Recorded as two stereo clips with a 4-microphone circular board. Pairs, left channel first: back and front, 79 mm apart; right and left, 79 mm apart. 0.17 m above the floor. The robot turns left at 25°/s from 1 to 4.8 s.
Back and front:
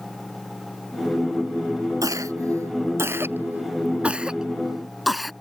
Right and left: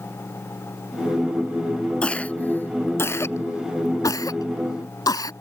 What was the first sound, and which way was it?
A cough, 20° right.